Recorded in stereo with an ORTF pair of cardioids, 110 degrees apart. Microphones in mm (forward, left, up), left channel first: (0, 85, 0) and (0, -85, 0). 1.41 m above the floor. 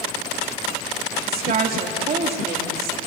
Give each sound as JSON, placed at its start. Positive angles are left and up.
{"t": 1.3, "sound": "a woman speaking", "azimuth_deg": -65, "distance_m": 2.0}